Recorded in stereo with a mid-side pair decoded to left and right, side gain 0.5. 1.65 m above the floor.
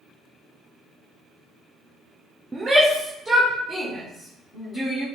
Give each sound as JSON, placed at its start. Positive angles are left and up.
{"t": 2.5, "sound": "a shout", "azimuth_deg": -25, "distance_m": 0.5}